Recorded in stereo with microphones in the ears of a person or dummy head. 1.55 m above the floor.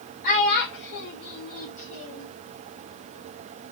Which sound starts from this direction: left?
A child speaking, at 0.2 s.